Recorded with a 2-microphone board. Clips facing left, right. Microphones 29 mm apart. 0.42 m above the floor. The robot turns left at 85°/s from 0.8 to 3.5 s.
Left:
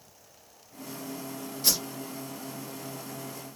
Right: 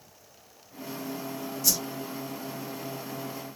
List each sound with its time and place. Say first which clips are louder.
1.6 s a whoosh: left 1 dB; 55° left (ahead or behind), 0.9 m; by 1.8 s 50° left (ahead or behind), 0.9 m